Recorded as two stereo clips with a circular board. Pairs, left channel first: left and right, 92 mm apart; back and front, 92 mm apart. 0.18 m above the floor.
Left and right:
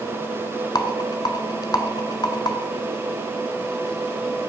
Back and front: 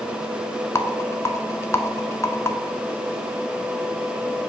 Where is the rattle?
125° left, 0.6 m.